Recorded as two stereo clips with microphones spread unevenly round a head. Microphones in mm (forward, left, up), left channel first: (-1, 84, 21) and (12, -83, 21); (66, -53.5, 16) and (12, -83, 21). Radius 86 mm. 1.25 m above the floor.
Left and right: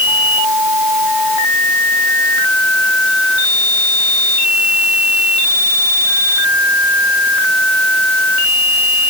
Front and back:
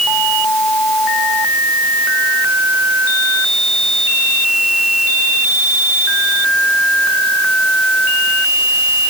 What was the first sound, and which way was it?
Only background noise.